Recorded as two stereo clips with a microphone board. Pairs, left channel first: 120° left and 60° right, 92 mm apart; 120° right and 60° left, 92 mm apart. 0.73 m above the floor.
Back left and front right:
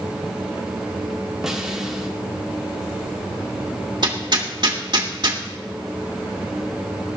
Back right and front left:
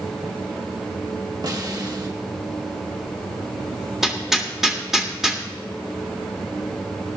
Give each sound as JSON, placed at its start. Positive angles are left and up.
{"t": 1.4, "sound": "a snare drum", "azimuth_deg": 25, "distance_m": 1.7}
{"t": 4.0, "sound": "hammering", "azimuth_deg": -25, "distance_m": 1.6}